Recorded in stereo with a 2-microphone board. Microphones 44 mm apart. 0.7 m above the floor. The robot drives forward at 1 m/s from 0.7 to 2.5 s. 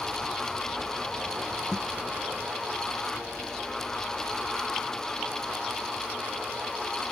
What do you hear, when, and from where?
1.7 s a thud: 10° left (ahead or behind)